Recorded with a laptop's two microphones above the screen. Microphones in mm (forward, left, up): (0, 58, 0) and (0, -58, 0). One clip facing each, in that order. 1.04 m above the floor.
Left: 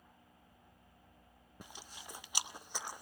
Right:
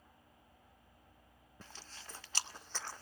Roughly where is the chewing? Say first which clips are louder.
Left 2 dB; centre.